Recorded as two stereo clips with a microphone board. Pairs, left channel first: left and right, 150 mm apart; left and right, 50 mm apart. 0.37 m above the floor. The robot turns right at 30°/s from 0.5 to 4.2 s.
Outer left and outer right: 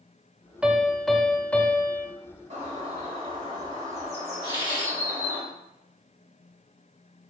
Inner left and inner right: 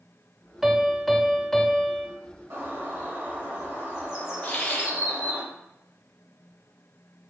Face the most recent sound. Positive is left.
turn(degrees=30)  # may be behind; listen again after turning